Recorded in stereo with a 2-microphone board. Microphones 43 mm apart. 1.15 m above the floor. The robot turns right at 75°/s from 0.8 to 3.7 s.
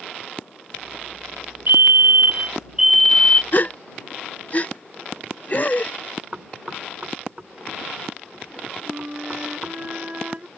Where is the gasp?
40° left (ahead or behind); by 5.9 s 35° left (ahead or behind).